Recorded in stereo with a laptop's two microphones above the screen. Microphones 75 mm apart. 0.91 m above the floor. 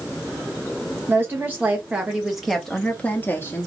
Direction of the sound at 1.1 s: 30° right (ahead or behind).